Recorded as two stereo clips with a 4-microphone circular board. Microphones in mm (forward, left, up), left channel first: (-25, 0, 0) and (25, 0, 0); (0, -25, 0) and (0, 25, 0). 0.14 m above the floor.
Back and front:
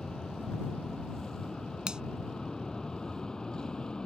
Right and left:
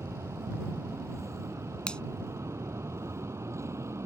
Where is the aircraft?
100° left; by 4.1 s 105° left.